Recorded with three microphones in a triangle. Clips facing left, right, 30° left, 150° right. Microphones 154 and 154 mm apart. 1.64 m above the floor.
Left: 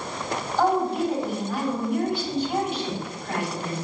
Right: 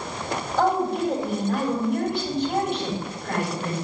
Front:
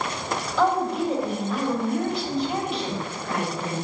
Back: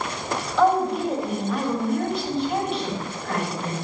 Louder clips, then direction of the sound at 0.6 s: Even, back 3 dB; 55° right.